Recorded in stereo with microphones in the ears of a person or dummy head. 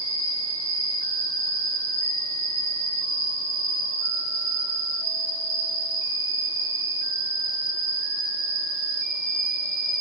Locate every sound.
0.0 s an insect: 40° right (ahead or behind), 1.5 m